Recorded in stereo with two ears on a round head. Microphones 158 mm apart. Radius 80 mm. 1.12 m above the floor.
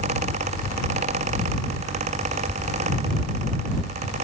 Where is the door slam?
No door slam in this recording.